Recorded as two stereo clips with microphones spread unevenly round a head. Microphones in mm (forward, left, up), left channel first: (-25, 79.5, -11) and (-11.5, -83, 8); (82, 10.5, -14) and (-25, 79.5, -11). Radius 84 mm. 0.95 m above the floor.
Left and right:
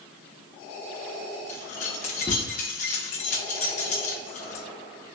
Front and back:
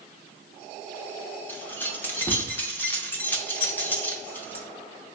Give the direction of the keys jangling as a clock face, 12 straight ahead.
11 o'clock.